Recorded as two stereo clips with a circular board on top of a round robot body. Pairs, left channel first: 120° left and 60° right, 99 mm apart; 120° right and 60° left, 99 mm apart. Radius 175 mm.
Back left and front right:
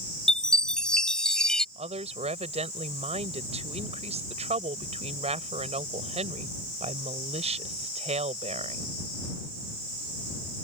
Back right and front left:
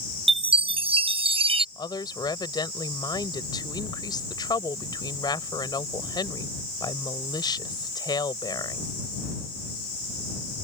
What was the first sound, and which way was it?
A chime, 35° left.